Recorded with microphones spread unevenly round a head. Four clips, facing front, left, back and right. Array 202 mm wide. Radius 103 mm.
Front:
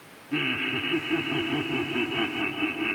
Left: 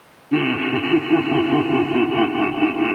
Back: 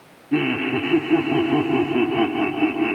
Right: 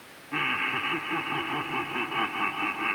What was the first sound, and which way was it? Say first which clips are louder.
Laughter: left 12 dB, back 9 dB; 125° left.